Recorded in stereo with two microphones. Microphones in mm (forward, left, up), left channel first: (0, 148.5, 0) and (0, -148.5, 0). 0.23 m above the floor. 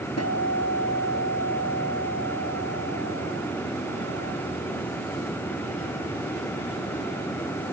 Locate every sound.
0.2 s a guitar: 55° left (ahead or behind), 3.5 m